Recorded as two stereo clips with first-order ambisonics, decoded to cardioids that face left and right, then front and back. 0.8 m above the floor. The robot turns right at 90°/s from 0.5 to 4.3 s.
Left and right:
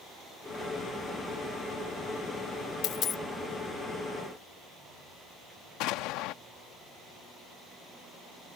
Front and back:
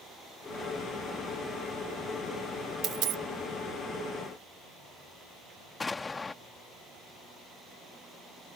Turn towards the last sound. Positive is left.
turn(degrees=75)